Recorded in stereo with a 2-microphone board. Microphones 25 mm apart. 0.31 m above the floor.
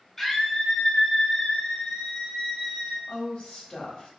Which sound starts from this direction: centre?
A scream, at 0.2 s.